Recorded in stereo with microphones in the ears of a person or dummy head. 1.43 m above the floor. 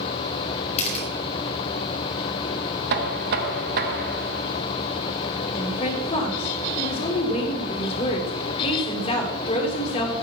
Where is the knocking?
55° right (ahead or behind), 1.4 m.